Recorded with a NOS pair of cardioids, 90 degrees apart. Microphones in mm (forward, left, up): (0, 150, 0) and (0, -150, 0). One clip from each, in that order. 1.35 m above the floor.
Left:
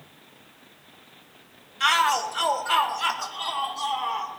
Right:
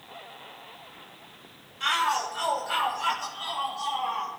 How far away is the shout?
About 2.5 m.